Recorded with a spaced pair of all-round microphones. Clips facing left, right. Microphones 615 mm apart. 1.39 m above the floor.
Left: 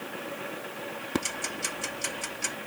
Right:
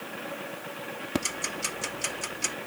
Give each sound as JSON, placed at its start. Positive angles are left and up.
{"t": 1.1, "sound": "ticking", "side_deg": -10}